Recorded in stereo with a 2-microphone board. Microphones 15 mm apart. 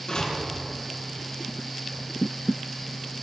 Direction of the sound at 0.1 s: 75° left (ahead or behind).